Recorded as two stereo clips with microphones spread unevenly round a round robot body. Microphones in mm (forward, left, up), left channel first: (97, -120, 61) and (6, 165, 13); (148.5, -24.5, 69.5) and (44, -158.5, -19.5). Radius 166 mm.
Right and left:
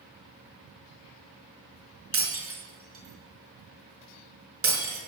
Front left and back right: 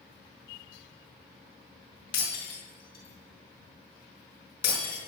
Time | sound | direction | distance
2.1 | breaking glass | 60° left | 5.5 m